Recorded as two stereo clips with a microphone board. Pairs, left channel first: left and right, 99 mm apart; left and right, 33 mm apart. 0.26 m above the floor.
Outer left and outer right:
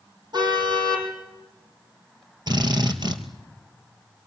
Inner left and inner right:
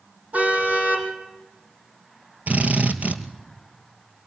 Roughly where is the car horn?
Right.